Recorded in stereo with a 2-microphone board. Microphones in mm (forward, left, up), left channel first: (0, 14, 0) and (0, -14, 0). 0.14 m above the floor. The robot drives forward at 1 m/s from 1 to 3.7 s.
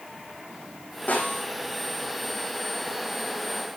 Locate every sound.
1.1 s a snare drum: 75° left (ahead or behind), 8.5 m; by 1.4 s 70° left (ahead or behind), 8.5 m